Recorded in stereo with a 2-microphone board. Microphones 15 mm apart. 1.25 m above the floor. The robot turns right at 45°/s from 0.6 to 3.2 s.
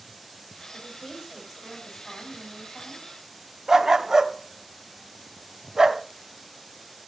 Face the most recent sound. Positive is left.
turn(degrees=-35)  # may be behind; listen again after turning